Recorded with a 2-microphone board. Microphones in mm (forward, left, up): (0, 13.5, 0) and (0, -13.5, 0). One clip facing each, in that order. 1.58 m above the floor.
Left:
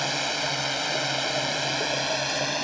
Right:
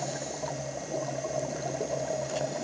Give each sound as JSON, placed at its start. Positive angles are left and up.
{"t": 0.0, "sound": "a drone", "side_deg": 75}